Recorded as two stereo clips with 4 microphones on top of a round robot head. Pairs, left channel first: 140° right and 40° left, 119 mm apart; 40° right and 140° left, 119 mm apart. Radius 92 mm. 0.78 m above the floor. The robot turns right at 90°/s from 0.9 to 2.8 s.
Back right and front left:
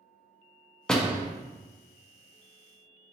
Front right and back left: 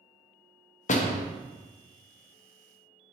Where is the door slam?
55° right, 0.6 m; by 1.3 s 25° right, 0.6 m.